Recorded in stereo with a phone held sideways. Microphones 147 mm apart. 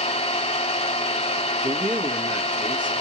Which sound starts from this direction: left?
An engine running, at 0.0 s.